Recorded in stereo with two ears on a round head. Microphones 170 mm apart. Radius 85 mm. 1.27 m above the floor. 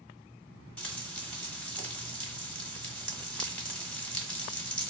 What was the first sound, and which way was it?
Frying, 5° left (ahead or behind).